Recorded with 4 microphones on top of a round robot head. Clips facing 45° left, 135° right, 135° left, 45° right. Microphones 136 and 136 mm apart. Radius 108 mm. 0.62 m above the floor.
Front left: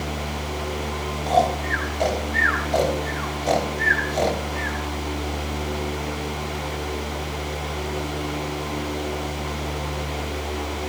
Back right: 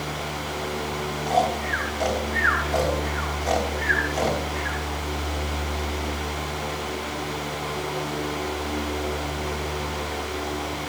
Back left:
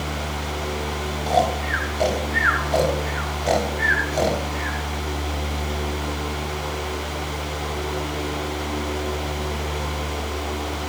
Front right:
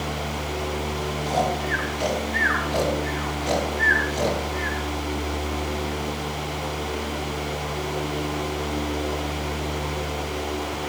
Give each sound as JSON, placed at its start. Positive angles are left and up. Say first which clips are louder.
{"t": 1.3, "sound": "snoring", "louder": "front left 3 dB, back left 4 dB", "azimuth_deg": 105, "distance_m": 3.5}